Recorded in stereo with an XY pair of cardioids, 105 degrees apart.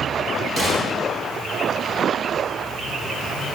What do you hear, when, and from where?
0.6 s a gunshot: 25° right, 5.5 m